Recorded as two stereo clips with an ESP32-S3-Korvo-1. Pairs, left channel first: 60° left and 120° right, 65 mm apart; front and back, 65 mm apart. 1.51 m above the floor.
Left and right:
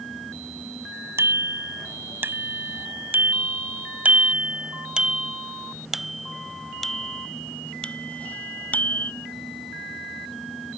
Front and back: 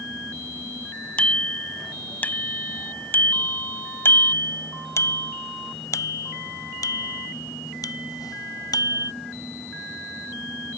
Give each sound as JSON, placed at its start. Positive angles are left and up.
{"t": 1.2, "sound": "a bicycle bell", "azimuth_deg": -70}